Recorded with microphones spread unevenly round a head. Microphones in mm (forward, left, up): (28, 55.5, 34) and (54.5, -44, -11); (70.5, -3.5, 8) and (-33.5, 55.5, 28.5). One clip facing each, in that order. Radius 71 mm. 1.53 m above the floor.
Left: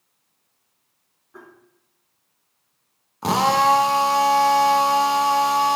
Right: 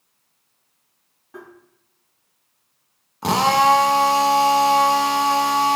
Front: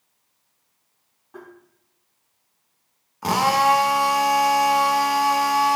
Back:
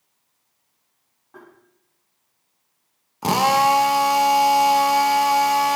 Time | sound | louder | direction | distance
1.3 | tapping | right 4 dB, front 4 dB | 120° right | 5 m
3.2 | a drill | right 1 dB, back 1 dB | 150° left | 0.8 m